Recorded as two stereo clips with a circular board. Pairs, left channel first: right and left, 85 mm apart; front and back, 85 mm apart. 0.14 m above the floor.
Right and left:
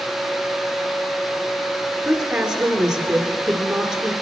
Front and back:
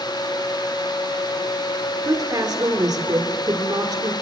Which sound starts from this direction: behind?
A woman speaking, at 2.0 s.